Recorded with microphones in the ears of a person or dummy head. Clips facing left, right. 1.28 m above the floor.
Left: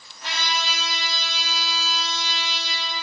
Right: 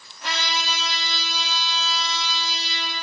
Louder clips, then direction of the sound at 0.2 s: Even; 70° right (ahead or behind).